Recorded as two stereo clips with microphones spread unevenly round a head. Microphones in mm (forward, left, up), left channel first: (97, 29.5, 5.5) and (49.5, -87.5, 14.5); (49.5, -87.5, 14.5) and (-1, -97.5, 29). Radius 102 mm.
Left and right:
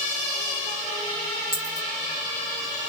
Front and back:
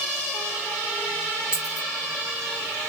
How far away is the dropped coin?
About 1.7 m.